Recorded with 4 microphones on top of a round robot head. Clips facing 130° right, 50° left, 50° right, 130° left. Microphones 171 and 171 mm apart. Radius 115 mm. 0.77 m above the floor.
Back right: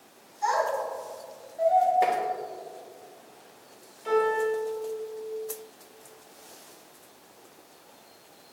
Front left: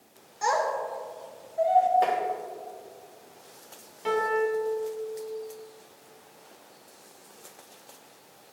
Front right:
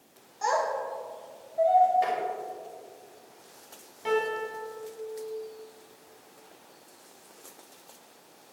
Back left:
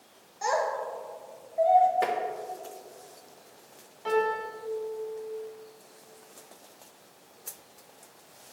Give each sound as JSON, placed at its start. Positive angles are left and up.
{"t": 0.4, "sound": "a child speaking", "azimuth_deg": 50, "distance_m": 3.0}
{"t": 2.0, "sound": "tapping", "azimuth_deg": 150, "distance_m": 1.8}
{"t": 4.0, "sound": "a piano", "azimuth_deg": 25, "distance_m": 3.0}